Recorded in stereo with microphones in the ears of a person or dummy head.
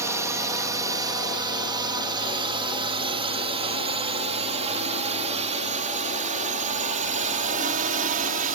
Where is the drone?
15° right (ahead or behind); by 8.6 s 40° right (ahead or behind).